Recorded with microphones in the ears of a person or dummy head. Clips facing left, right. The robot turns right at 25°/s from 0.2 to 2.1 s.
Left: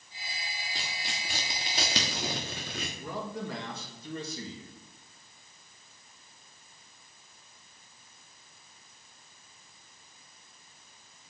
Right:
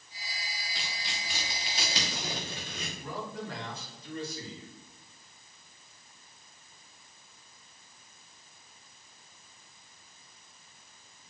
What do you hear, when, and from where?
0.8 s tearing paper: 35° left (ahead or behind), 1.3 m; by 2.9 s 40° left (ahead or behind), 1.3 m
3.0 s a man speaking: 90° left, 3 m